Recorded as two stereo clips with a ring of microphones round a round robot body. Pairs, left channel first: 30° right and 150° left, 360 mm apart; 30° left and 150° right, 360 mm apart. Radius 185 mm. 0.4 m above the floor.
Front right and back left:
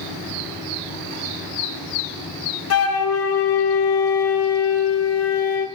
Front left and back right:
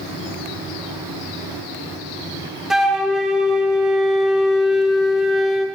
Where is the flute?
60° right, 1.2 m.